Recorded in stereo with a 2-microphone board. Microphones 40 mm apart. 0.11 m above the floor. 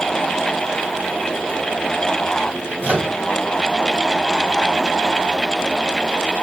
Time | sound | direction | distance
2.8 | a microwave | 50° right (ahead or behind) | 2 m